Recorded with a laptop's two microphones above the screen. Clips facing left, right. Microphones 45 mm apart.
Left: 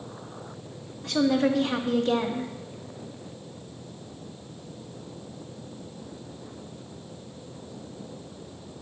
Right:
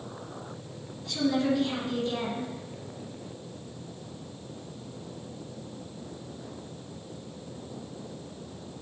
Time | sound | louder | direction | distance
1.0 | a woman speaking | left 4 dB | 70° left (ahead or behind) | 1.8 m